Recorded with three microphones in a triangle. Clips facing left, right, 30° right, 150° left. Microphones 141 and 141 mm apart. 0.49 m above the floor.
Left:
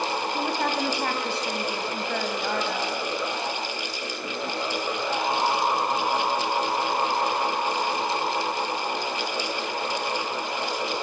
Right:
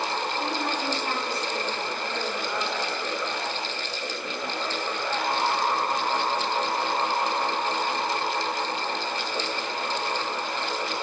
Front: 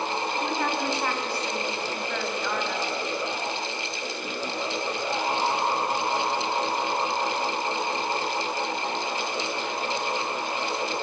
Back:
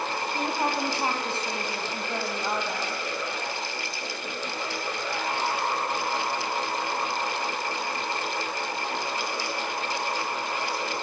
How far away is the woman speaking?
About 4 m.